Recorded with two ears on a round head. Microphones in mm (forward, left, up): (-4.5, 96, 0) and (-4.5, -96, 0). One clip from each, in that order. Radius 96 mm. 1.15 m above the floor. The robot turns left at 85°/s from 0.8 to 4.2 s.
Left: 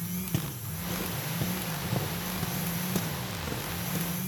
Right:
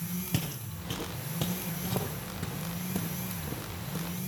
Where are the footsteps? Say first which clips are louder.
Right 1 dB; 30° right (ahead or behind), 1.3 m; by 4.3 s 10° left (ahead or behind), 4 m.